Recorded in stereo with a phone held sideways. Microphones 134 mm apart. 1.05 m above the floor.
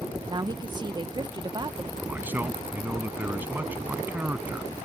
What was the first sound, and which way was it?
A woman speaking, 30° right (ahead or behind).